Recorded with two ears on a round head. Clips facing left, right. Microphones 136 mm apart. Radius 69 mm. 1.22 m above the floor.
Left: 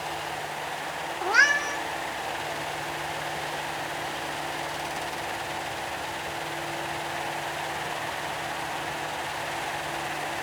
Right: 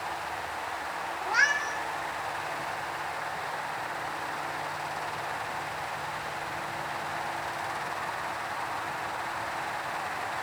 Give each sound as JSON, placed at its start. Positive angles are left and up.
{"t": 1.2, "sound": "a cat meowing", "side_deg": 65, "distance_m": 1.4}